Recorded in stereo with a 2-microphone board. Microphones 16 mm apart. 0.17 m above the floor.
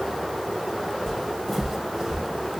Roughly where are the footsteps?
Left.